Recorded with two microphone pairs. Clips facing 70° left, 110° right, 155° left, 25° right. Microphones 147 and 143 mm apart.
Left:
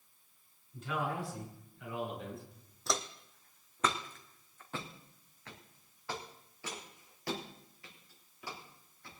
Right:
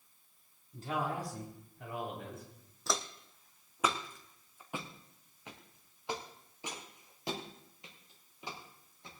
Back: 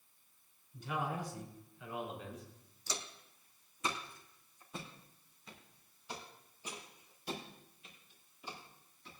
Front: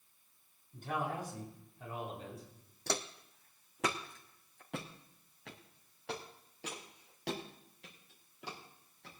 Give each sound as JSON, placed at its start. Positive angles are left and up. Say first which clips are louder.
{"t": 0.7, "sound": "a man speaking", "louder": "right 1 dB, front 1 dB", "azimuth_deg": -55, "distance_m": 5.5}
{"t": 2.9, "sound": "footsteps", "louder": "even, front 7 dB", "azimuth_deg": -20, "distance_m": 1.1}